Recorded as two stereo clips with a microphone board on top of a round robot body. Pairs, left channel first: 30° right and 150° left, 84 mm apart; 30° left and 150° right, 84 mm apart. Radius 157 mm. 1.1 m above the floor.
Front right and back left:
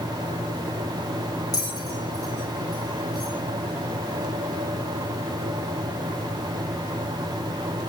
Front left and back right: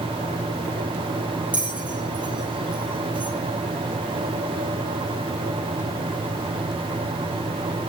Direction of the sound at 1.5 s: 75° right.